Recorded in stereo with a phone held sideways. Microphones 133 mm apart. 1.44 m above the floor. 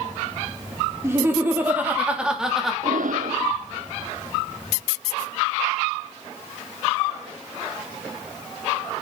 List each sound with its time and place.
1.0 s laughter: 20° right (ahead or behind), 3 m; by 2.7 s centre (ahead or behind), 2.5 m
2.8 s breathing: 80° right, 0.8 m